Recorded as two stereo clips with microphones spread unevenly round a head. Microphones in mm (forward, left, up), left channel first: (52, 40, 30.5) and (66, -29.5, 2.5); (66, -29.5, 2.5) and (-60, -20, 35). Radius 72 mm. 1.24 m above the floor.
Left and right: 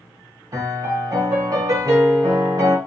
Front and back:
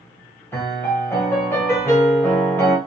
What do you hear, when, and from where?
0.5 s a piano: 70° right, 1.0 m